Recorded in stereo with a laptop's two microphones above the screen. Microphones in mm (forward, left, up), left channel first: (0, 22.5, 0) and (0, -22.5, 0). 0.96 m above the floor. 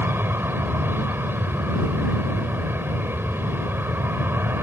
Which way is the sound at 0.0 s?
50° right (ahead or behind).